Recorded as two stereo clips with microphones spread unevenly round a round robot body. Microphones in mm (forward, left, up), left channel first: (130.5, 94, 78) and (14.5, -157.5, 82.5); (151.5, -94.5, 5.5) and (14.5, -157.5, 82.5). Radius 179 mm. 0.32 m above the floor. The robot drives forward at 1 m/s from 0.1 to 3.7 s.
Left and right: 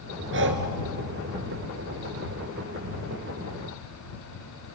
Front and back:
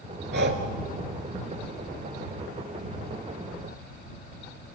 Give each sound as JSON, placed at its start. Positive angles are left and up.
{"t": 0.3, "sound": "breathing", "azimuth_deg": -170, "distance_m": 1.1}